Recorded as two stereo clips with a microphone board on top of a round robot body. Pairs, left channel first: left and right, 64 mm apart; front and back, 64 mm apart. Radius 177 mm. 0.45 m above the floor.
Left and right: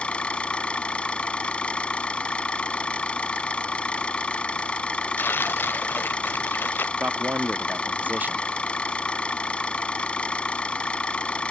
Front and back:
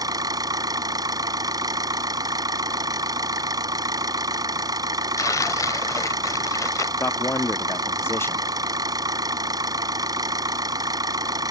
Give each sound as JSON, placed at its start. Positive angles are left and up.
{"t": 0.0, "sound": "an engine running", "azimuth_deg": 165}
{"t": 5.2, "sound": "tearing paper", "azimuth_deg": 30}
{"t": 7.0, "sound": "a man speaking", "azimuth_deg": -35}